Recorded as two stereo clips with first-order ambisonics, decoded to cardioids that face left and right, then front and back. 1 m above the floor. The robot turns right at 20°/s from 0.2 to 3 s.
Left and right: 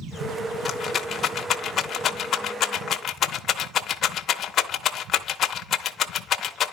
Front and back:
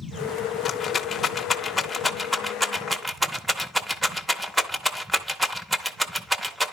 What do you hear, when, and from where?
0.7 s a rattle: 55° left, 0.8 m; by 6.7 s 100° left, 0.8 m